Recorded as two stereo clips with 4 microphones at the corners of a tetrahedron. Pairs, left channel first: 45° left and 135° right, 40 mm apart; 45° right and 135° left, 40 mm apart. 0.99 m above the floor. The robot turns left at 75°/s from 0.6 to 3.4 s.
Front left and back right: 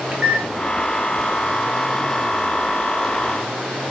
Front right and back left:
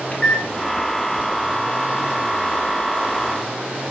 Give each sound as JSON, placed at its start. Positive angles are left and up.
{"t": 0.1, "sound": "a microwave", "azimuth_deg": -85, "distance_m": 0.7}